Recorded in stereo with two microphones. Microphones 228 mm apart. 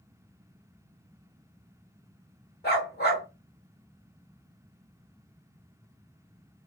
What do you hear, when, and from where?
2.6 s a dog barking: 45° left (ahead or behind), 1.7 m